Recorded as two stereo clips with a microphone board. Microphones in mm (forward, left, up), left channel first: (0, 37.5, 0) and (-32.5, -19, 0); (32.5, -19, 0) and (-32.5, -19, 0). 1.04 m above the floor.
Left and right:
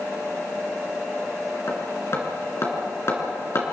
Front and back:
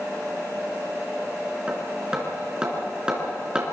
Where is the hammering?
105° left, 3.5 m.